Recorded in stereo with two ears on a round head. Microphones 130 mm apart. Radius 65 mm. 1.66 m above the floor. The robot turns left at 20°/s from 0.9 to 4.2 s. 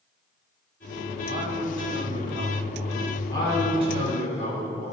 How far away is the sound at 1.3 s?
About 2.5 m.